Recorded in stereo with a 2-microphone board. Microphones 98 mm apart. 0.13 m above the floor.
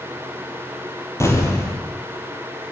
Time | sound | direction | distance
1.2 | an explosion | 30° left (ahead or behind) | 4 m